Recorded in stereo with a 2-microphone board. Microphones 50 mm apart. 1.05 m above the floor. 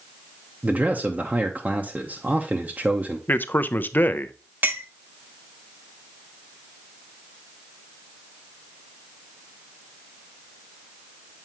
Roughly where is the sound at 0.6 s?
Right.